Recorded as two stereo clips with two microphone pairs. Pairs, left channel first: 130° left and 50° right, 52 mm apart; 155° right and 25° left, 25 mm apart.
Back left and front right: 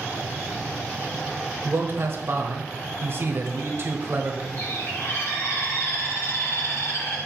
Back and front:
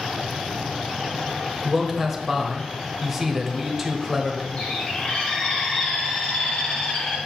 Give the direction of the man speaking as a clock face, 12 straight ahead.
2 o'clock.